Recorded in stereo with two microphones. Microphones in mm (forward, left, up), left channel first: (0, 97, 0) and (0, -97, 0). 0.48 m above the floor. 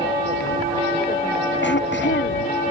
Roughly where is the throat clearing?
Left.